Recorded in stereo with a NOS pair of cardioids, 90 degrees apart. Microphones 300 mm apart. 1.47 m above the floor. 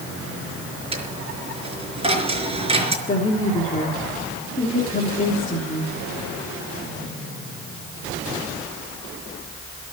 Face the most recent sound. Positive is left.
turn(degrees=25)